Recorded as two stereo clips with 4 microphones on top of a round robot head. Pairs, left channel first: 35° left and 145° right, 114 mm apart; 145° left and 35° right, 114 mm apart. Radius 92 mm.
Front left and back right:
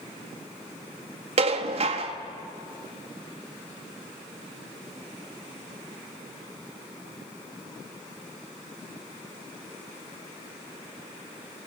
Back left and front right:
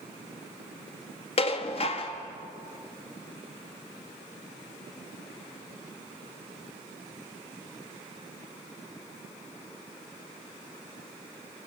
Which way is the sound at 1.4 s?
Straight behind.